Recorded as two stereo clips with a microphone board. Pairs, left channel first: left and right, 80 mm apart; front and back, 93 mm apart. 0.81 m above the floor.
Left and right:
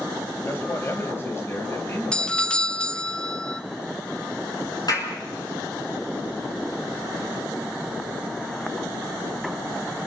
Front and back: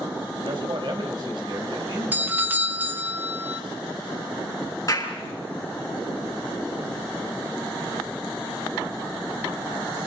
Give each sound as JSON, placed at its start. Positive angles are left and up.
{"t": 0.5, "sound": "a man speaking", "azimuth_deg": 150, "distance_m": 3.5}
{"t": 2.1, "sound": "a doorbell", "azimuth_deg": 145, "distance_m": 0.8}
{"t": 4.9, "sound": "a clap", "azimuth_deg": 55, "distance_m": 7.0}